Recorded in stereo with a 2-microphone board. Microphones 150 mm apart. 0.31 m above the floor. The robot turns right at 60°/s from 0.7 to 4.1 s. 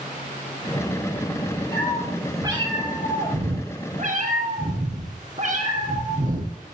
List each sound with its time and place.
1.7 s a cat meowing: 160° left, 4 m; by 6.6 s 55° right, 4 m